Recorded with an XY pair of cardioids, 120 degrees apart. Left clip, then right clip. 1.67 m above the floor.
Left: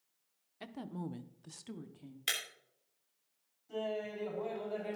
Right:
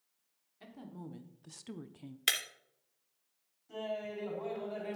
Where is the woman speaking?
50° left, 1.4 m; by 2.2 s 35° right, 1.1 m.